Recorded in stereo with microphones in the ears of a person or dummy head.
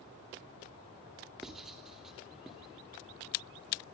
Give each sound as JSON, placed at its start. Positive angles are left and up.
{"t": 1.4, "sound": "writing", "side_deg": -5, "distance_m": 3.0}